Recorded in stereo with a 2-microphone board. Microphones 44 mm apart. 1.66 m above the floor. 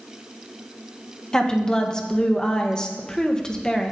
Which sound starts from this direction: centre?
A woman speaking, at 1.3 s.